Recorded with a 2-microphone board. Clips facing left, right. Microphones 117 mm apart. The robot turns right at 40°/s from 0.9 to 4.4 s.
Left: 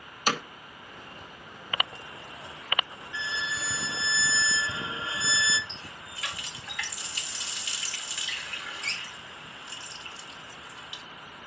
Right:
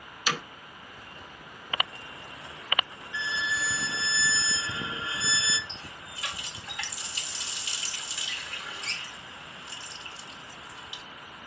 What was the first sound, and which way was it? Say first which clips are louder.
Hammering: left 3 dB; 45° left (ahead or behind).